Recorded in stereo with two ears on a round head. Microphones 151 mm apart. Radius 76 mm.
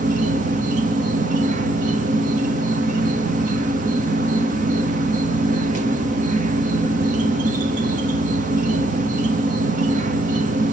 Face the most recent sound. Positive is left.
turn(degrees=-45)  # may be behind; listen again after turning